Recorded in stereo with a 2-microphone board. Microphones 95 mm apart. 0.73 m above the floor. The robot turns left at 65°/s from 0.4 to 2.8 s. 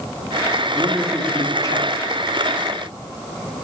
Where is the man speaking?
155° right, 1.2 m; by 2.3 s 100° left, 1.2 m.